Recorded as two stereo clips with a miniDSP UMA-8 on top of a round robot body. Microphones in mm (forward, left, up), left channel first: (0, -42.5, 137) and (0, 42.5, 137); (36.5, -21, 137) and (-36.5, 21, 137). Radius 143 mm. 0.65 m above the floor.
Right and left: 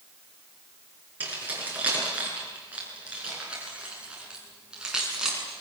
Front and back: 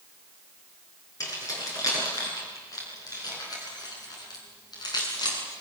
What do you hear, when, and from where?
1.2 s keys jangling: 20° left, 7 m; by 5.6 s 5° left, 5.5 m